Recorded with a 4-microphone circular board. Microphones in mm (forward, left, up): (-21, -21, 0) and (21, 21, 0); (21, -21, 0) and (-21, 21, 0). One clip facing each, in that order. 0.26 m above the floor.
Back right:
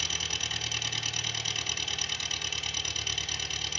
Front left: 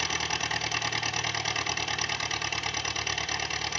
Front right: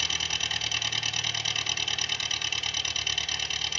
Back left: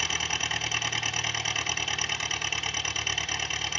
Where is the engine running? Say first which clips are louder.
Front left 5 dB, back left 2 dB; 75° left, 0.8 m.